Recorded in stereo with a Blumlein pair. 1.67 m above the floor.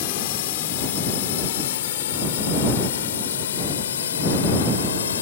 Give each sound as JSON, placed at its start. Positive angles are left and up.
{"t": 0.0, "sound": "a drone", "azimuth_deg": 50}